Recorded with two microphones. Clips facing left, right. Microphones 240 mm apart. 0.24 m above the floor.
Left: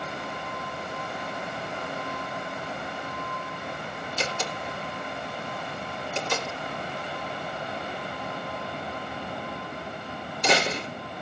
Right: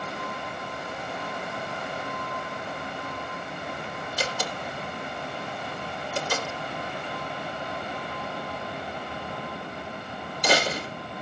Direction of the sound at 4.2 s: 25° left (ahead or behind).